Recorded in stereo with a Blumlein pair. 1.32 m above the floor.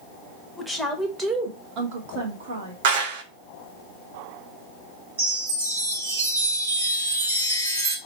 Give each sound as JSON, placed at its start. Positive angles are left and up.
{"t": 0.6, "sound": "a woman speaking", "azimuth_deg": 0, "distance_m": 1.2}
{"t": 2.8, "sound": "a clap", "azimuth_deg": -55, "distance_m": 0.9}
{"t": 5.2, "sound": "a chime", "azimuth_deg": -65, "distance_m": 1.7}